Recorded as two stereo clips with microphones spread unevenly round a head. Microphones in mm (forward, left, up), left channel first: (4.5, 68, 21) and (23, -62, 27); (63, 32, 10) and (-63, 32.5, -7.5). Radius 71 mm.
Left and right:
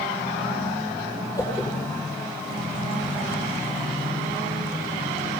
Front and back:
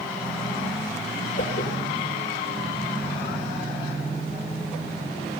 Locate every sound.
1.4 s a whoosh: 30° left, 7 m